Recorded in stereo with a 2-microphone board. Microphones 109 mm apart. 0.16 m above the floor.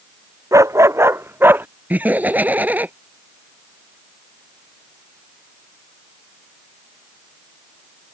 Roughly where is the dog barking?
Right.